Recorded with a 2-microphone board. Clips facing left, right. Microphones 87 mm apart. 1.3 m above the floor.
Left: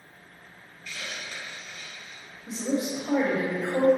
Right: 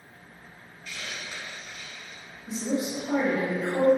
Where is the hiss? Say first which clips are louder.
Even; 15° right (ahead or behind), 1.5 m.